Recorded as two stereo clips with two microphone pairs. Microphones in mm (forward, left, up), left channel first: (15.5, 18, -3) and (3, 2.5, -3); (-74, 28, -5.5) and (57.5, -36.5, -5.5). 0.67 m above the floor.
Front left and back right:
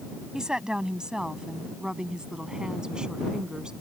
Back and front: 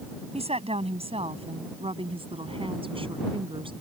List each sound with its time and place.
0.3 s a woman speaking: 70° right; by 3.7 s 80° right